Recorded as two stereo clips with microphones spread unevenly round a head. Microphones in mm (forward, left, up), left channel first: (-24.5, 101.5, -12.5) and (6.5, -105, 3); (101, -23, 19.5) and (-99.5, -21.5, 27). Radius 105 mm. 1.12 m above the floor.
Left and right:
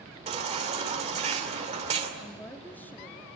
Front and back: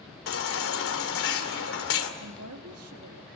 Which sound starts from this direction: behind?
A woman speaking, at 2.2 s.